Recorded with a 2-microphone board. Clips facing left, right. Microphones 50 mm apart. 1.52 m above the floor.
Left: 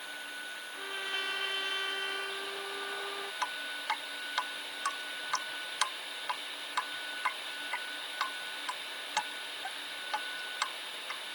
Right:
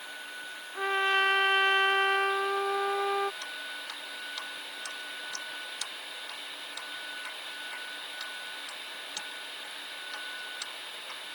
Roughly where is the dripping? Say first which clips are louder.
Left 3 dB; left.